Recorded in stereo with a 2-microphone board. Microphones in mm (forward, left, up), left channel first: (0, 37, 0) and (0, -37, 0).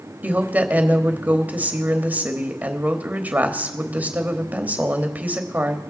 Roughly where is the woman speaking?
Right.